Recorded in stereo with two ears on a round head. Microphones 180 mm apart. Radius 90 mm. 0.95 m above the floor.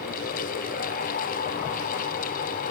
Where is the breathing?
No breathing in this recording.